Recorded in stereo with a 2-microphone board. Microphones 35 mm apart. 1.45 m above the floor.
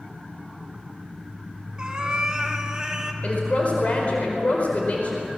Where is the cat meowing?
25° right (ahead or behind), 1.5 m; by 3.1 s 20° right (ahead or behind), 1.9 m.